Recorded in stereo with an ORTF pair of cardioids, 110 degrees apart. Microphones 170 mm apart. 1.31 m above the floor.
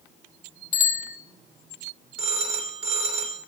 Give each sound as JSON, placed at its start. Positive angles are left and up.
{"t": 0.7, "sound": "a bicycle bell", "azimuth_deg": 50, "distance_m": 3.5}
{"t": 2.2, "sound": "a phone ringing", "azimuth_deg": -35, "distance_m": 3.0}